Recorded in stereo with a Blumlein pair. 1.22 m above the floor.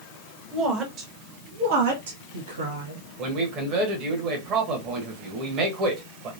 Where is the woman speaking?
25° right, 1.5 m; by 3.1 s 75° right, 1.6 m.